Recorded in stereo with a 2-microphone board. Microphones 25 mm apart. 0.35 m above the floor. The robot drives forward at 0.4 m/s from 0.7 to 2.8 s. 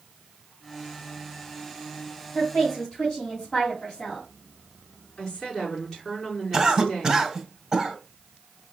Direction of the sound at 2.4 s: 35° left (ahead or behind).